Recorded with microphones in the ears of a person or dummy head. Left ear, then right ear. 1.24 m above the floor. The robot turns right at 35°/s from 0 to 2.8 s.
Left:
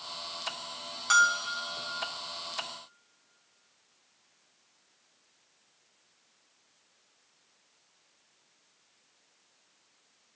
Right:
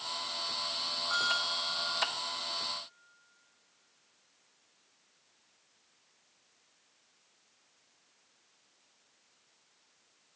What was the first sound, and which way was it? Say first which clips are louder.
A bell: left 8 dB; 55° left (ahead or behind).